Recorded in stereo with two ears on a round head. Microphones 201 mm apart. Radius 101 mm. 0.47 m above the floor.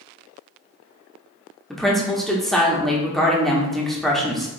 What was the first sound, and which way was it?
A woman speaking, centre (ahead or behind).